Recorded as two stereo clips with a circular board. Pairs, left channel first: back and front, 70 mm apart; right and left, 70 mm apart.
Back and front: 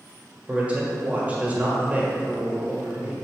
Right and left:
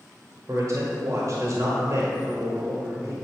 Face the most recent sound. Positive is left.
turn(degrees=65)